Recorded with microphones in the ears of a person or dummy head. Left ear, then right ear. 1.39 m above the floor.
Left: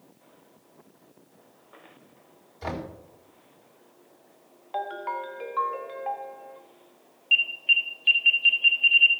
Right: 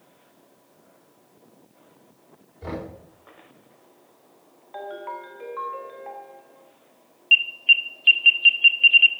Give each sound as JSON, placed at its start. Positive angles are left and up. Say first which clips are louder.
{"t": 2.6, "sound": "knocking", "louder": "even", "side_deg": 55, "distance_m": 4.0}
{"t": 4.7, "sound": "a ringtone", "louder": "left 3 dB", "side_deg": 20, "distance_m": 1.1}
{"t": 7.3, "sound": "an alarm", "louder": "right 4 dB", "side_deg": -20, "distance_m": 0.9}